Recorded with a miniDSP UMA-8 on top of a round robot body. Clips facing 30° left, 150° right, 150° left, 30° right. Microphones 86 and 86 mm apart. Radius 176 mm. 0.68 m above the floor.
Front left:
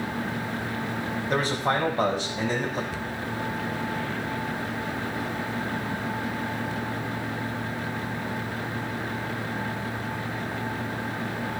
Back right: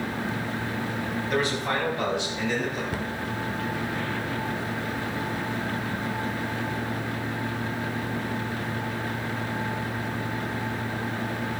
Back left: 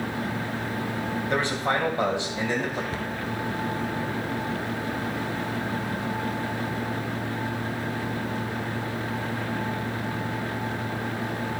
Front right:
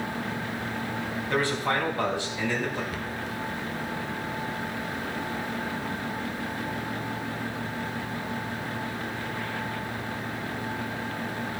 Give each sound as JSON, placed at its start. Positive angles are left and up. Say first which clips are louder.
{"t": 1.3, "sound": "a man speaking", "louder": "front left 2 dB, even", "azimuth_deg": 80, "distance_m": 4.5}
{"t": 2.9, "sound": "a cupboard door", "louder": "back right 2 dB, back left 3 dB", "azimuth_deg": -160, "distance_m": 1.3}